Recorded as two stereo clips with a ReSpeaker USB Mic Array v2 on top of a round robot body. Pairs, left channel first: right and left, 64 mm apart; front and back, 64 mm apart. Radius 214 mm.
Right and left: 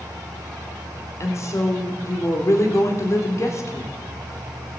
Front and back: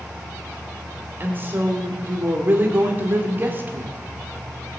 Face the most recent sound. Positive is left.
turn(degrees=-125)